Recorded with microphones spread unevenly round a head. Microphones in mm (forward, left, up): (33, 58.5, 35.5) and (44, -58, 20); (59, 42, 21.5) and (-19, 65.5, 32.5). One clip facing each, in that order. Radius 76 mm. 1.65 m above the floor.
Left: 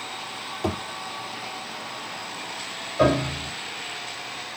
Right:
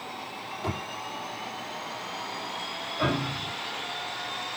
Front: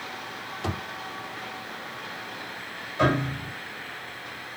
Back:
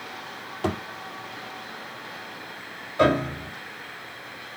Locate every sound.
0.6 s a thud: 140° left, 4 m
3.0 s a piano: 125° left, 5 m